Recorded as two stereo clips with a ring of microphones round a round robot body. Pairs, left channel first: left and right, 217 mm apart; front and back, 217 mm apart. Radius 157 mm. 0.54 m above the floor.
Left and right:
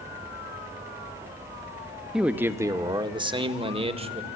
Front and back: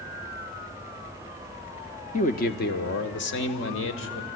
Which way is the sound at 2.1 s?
5° right.